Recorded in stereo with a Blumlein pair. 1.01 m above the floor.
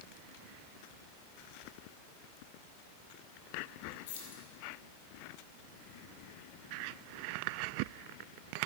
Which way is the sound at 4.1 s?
55° left.